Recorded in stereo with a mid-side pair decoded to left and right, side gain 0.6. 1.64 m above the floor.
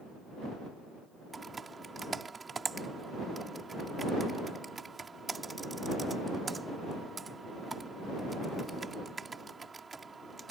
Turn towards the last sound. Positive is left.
turn(degrees=-25)